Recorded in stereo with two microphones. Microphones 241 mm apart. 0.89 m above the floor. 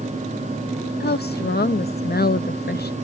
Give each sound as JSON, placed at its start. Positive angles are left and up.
{"t": 1.0, "sound": "a woman speaking", "side_deg": 40}